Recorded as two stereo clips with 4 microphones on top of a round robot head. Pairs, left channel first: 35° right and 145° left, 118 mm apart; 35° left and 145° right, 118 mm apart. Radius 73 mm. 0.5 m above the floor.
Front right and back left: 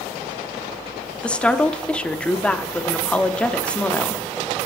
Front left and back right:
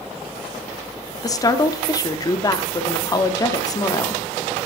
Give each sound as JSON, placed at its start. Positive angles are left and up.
{"t": 1.2, "sound": "a woman speaking", "azimuth_deg": 40, "distance_m": 0.8}